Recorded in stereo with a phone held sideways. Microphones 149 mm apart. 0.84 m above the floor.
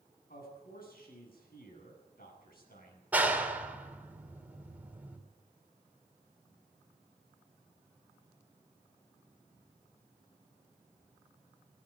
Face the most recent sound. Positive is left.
turn(degrees=-10)  # may be behind; listen again after turning